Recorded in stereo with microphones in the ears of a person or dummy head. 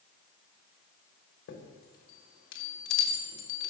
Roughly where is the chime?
Left.